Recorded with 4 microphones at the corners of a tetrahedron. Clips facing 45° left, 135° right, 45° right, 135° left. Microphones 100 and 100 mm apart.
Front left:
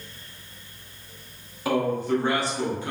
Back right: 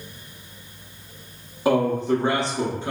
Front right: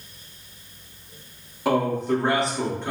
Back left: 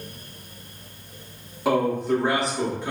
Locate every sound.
1.6 s a man speaking: 135° right, 0.6 m